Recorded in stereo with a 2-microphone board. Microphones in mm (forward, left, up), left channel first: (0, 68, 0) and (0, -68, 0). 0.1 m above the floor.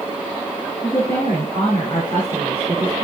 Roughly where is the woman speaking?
Left.